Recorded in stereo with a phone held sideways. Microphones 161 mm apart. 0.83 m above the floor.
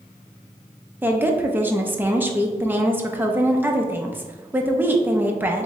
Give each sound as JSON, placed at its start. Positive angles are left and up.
{"t": 1.0, "sound": "a woman speaking", "side_deg": -10, "distance_m": 0.6}